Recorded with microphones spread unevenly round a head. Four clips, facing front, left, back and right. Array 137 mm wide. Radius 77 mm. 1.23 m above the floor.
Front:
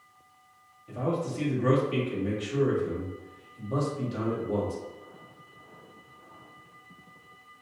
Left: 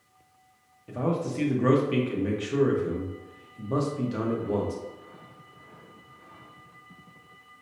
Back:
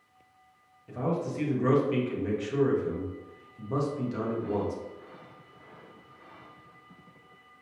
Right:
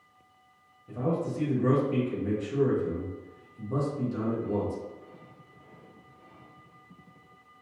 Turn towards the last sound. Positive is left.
turn(degrees=95)